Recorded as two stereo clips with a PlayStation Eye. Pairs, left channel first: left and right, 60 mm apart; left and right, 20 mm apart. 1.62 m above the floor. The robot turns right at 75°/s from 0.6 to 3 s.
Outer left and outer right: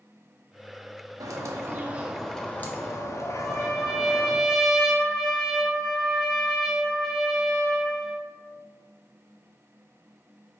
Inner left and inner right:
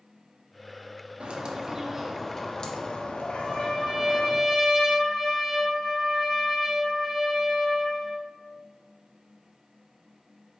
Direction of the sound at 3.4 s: Centre (ahead or behind).